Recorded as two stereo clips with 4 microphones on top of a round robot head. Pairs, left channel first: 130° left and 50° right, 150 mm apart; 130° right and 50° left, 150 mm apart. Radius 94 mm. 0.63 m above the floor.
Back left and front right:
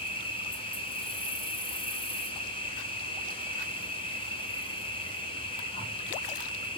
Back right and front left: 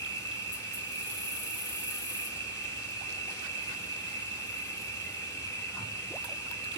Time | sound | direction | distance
0.0 | an insect | 160° left | 2 m